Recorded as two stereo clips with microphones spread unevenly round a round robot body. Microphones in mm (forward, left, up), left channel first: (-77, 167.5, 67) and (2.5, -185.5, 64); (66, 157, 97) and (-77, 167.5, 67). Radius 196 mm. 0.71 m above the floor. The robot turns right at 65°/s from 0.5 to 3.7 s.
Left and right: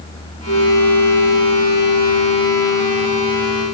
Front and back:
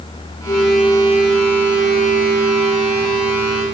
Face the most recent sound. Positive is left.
turn(degrees=-105)